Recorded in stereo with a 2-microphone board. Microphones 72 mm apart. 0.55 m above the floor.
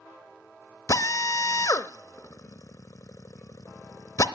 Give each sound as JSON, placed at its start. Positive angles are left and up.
{"t": 0.9, "sound": "a drill", "side_deg": 50, "distance_m": 0.8}